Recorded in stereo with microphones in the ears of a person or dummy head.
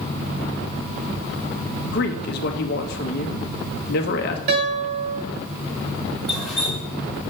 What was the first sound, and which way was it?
A man speaking, 55° left (ahead or behind).